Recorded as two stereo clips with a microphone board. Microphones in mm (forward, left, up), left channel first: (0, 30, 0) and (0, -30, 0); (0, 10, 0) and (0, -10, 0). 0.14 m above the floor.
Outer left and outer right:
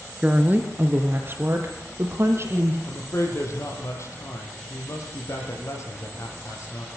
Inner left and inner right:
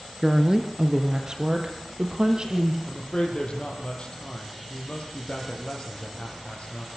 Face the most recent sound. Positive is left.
turn(degrees=55)  # may be behind; listen again after turning